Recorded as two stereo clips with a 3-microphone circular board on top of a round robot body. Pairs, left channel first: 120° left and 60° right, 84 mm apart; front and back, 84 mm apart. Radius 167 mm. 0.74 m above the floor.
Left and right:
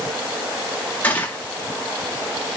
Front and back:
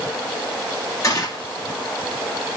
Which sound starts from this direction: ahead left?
A gunshot, at 1.0 s.